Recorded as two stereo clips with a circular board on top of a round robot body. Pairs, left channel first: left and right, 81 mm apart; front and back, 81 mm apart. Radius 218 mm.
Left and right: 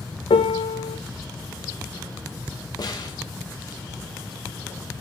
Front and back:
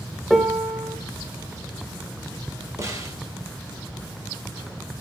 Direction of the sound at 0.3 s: 90° left.